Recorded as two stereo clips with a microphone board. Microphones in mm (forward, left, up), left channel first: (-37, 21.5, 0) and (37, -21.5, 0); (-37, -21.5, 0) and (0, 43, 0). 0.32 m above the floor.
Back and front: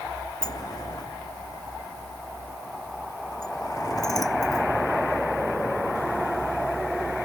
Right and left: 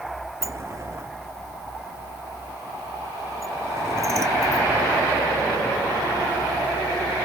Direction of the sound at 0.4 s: 105° left.